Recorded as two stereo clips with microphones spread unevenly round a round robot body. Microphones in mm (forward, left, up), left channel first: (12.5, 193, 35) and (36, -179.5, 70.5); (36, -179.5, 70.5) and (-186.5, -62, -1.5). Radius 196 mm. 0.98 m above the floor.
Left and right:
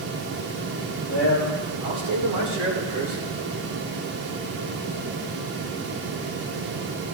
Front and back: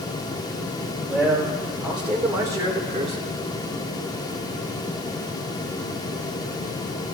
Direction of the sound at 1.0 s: 115° right.